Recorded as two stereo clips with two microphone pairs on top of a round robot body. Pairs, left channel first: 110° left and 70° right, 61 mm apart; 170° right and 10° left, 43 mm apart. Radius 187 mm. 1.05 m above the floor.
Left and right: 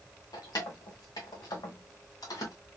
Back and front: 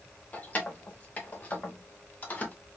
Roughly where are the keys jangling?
Behind left.